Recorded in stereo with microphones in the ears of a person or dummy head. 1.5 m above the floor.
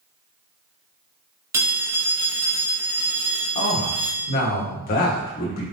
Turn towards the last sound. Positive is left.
turn(degrees=45)  # may be behind; listen again after turning